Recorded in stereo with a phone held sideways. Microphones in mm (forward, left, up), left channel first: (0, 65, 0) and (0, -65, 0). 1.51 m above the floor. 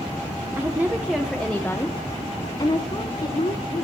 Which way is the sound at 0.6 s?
20° right (ahead or behind).